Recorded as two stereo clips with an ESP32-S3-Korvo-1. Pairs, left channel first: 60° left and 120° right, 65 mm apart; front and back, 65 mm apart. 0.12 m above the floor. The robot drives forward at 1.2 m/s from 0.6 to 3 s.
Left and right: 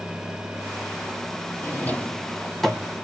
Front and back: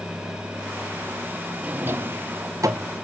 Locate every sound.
1.6 s a drawer: 110° left, 1.3 m; by 2.9 s 150° left, 2.5 m